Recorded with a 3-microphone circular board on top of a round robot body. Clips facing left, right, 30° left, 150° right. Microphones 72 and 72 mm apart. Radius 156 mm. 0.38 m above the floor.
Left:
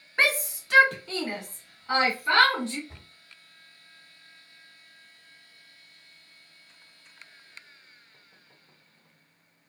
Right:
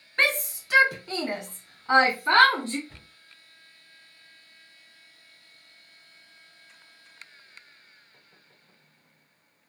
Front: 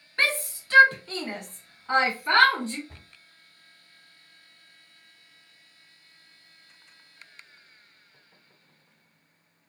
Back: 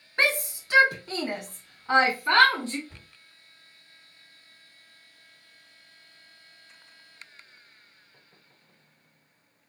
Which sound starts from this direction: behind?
A shout, at 0.2 s.